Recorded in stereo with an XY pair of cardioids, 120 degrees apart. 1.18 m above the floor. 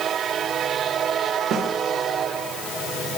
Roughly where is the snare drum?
Ahead right.